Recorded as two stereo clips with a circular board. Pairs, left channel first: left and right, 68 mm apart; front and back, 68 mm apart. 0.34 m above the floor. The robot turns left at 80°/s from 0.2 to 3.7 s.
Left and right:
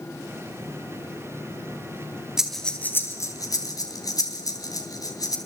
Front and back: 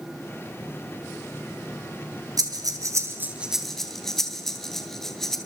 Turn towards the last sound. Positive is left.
turn(degrees=85)